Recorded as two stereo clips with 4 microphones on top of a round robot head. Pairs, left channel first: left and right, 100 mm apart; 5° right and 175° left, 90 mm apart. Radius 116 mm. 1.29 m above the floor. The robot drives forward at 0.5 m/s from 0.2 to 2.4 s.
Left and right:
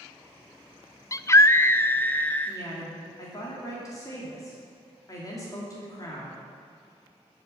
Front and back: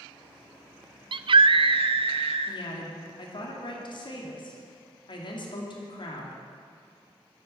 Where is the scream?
145° left, 0.7 m; by 2.6 s 165° left, 1.3 m.